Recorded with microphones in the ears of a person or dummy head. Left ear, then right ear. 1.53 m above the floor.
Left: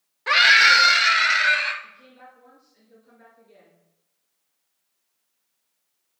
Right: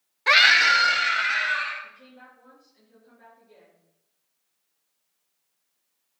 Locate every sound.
0.3 s a scream: 20° right (ahead or behind), 0.6 m; by 1.7 s 45° left (ahead or behind), 2 m
1.8 s a woman speaking: 15° left (ahead or behind), 5 m